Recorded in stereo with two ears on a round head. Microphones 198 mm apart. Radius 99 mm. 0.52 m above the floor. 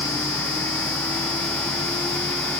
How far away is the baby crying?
No baby crying in this recording.